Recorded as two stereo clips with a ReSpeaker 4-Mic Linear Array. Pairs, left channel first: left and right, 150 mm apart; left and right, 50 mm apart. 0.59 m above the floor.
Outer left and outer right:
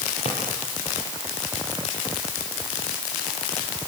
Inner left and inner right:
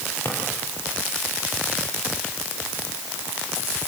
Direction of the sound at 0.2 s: 40° left (ahead or behind).